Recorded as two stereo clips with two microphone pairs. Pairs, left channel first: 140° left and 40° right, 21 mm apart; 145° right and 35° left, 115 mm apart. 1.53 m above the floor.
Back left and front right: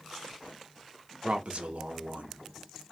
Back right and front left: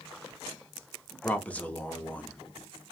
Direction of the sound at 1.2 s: 70° right.